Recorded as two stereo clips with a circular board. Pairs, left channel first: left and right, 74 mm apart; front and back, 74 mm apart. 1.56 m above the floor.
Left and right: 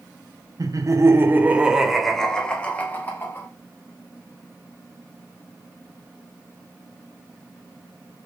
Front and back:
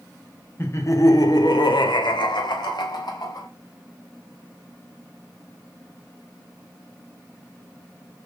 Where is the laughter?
55° right, 1.4 m; by 3.5 s 30° left, 2.5 m.